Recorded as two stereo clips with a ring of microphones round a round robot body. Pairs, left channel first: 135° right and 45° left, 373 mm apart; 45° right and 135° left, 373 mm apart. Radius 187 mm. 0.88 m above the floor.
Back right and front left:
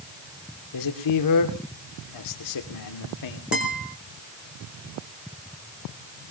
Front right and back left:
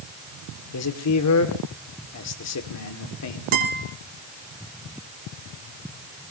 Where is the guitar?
130° left, 4.5 m.